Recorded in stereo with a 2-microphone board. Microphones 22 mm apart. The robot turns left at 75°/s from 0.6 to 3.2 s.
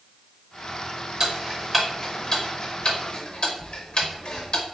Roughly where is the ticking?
Right.